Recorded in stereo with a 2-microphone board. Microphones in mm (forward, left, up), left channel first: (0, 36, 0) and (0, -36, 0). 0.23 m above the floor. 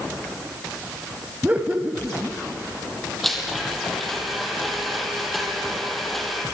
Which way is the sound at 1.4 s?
20° right (ahead or behind).